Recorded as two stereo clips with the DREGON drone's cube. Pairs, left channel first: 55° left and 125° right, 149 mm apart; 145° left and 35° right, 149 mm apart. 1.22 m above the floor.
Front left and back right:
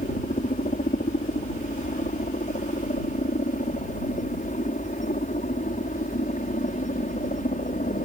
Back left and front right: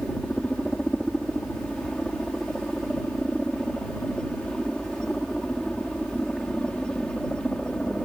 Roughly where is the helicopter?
Ahead left.